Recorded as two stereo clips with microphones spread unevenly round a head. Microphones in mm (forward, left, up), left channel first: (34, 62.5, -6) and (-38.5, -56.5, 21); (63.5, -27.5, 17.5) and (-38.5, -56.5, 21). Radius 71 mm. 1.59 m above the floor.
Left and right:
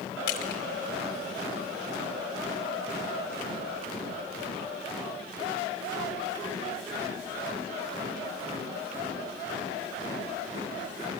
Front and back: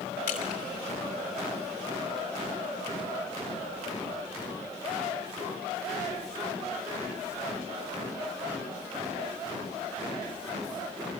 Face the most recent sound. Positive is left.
turn(degrees=45)